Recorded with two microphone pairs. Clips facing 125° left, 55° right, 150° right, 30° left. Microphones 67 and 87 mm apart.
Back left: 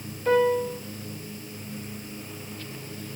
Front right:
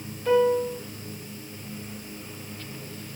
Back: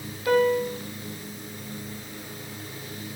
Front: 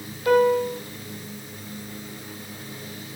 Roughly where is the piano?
Ahead left.